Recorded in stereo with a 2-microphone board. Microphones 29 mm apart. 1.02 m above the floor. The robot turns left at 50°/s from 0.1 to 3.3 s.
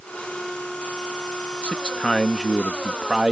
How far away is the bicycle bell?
No bicycle bell in this recording.